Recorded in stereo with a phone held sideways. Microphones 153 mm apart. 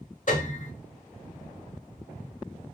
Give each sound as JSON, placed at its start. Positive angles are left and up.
{"t": 0.3, "sound": "a piano", "side_deg": 60, "distance_m": 1.4}